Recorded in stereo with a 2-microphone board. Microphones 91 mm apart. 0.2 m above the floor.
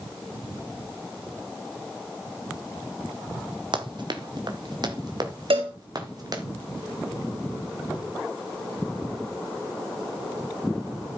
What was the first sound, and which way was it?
Running footsteps, 55° right (ahead or behind).